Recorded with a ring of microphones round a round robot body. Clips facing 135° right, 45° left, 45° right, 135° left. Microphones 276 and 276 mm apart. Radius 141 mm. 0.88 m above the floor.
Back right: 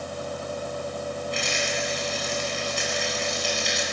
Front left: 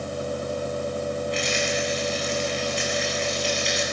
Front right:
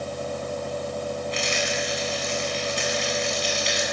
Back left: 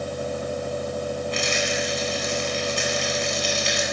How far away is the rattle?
About 9 m.